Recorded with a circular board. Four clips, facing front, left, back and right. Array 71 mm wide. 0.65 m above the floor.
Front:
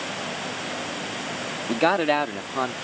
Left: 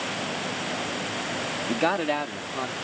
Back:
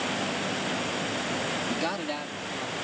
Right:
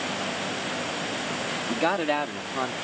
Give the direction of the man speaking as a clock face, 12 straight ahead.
12 o'clock.